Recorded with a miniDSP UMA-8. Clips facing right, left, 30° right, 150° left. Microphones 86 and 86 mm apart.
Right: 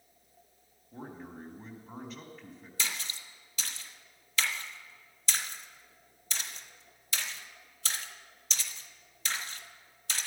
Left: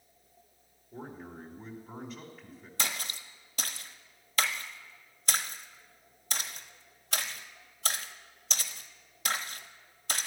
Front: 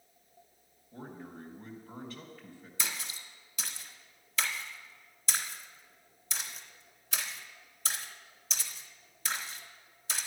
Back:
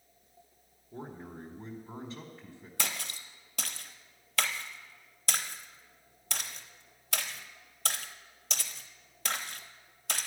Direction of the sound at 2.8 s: 135° left.